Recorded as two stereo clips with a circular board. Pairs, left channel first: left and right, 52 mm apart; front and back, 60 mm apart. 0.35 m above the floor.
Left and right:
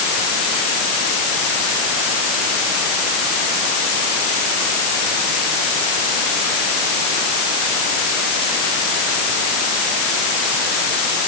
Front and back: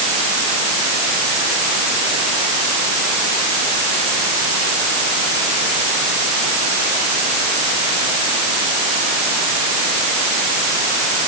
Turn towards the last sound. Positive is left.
No sound to turn to.